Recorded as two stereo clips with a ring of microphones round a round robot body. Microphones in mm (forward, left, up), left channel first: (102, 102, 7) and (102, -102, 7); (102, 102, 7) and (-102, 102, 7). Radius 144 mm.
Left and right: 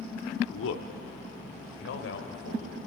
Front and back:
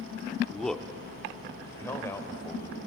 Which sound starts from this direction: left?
A man speaking, at 0.5 s.